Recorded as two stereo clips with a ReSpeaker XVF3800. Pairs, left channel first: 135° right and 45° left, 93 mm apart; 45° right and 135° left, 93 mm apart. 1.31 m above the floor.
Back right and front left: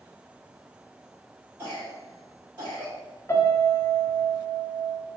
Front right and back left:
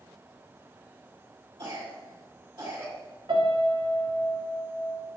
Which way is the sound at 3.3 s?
165° left.